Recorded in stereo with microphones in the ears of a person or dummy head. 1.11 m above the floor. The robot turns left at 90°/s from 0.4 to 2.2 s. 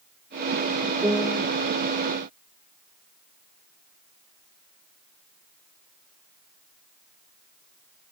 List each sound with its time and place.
1.0 s a piano: 165° right; by 1.5 s 155° left